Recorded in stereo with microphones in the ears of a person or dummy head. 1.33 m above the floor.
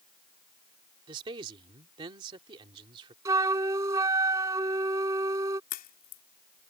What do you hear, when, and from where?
1.1 s a man speaking: 30° right (ahead or behind)
3.2 s a flute: 20° right (ahead or behind)
5.7 s a crack: 45° left (ahead or behind)